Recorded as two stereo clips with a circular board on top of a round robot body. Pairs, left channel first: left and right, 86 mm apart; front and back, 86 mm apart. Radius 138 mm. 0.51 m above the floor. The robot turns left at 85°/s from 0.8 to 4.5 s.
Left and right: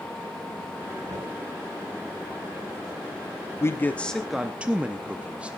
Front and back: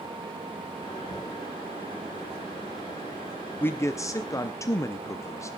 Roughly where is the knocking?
Behind right.